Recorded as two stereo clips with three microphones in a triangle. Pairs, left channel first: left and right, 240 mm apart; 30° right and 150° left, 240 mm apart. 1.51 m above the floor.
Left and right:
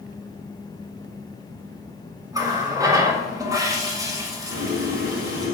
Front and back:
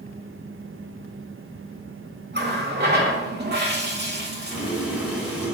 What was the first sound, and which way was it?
A running tap, 165° right.